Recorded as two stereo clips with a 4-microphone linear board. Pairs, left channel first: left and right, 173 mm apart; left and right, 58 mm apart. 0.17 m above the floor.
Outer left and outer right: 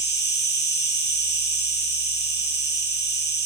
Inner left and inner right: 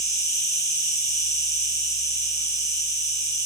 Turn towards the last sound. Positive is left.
turn(degrees=75)  # may be behind; listen again after turning